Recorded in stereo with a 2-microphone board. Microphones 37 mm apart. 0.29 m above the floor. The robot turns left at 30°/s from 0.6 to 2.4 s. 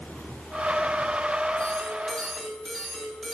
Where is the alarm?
20° left (ahead or behind), 3 m; by 3.4 s centre (ahead or behind), 3 m.